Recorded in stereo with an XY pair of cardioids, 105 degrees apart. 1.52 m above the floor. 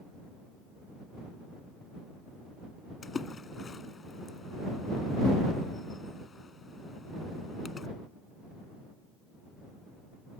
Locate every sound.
3.0 s a splash: 35° left